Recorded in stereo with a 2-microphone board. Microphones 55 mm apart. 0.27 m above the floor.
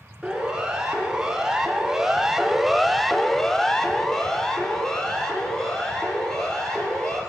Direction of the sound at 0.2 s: 10° right (ahead or behind).